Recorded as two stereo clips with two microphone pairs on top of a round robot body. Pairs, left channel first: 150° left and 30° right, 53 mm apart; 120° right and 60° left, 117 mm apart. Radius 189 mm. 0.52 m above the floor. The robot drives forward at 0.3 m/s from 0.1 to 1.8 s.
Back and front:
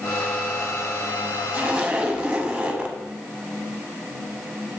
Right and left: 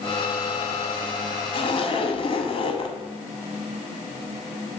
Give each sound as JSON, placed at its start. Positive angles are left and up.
{"t": 1.5, "sound": "a zipper", "azimuth_deg": -105, "distance_m": 1.1}